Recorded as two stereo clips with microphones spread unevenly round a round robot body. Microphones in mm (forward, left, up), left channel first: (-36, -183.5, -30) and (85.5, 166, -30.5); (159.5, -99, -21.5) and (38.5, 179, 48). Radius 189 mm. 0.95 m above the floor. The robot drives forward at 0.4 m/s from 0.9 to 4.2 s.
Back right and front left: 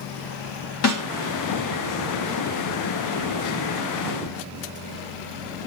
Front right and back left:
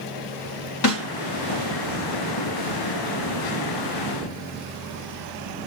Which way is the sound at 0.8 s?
60° right.